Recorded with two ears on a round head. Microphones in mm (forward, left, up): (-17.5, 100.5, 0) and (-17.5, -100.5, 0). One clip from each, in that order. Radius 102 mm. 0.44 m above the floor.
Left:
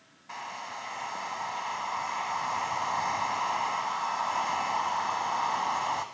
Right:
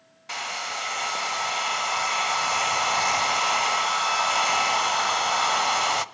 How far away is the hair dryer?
About 0.6 m.